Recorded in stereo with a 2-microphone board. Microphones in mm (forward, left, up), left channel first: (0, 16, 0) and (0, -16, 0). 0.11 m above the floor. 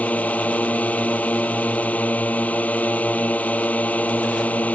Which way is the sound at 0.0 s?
50° left (ahead or behind).